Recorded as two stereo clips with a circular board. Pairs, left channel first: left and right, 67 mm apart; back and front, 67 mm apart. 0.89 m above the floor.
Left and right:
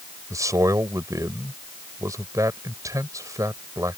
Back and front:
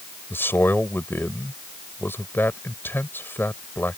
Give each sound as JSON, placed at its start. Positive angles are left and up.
{"t": 0.3, "sound": "a man speaking", "azimuth_deg": -125}